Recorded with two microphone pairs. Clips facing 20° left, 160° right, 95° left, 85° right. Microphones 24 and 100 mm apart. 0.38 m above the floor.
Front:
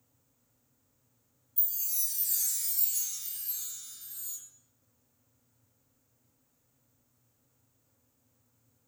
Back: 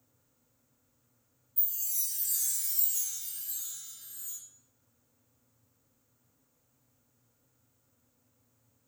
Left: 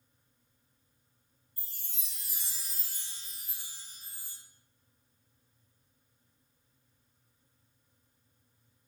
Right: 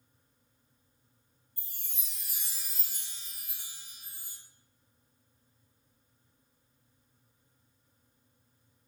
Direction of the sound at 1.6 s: 10° right.